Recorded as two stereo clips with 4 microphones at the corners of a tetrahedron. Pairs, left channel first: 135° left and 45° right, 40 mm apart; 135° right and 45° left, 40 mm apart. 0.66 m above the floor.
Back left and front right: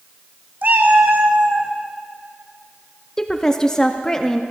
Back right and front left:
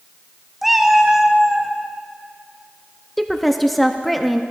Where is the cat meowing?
40° right, 0.6 m; by 1.7 s 35° right, 1.2 m.